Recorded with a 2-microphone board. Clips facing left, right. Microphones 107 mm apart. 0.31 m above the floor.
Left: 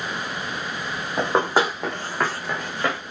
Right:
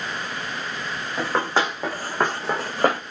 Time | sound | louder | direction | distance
1.2 | running footsteps | left 3 dB | 25° left (ahead or behind) | 0.8 m